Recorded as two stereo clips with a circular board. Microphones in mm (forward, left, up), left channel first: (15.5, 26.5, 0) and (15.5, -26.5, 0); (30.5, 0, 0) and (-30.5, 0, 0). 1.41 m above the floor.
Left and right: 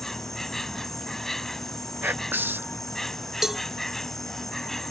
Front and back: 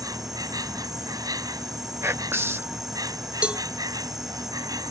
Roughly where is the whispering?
Behind right.